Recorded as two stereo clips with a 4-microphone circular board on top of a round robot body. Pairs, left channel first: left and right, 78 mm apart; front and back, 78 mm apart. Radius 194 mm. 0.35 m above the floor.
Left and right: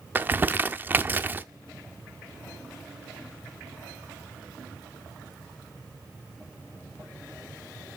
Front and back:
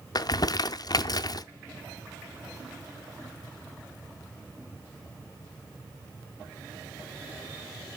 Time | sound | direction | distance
0.1 | crumpling | 25° right | 0.6 m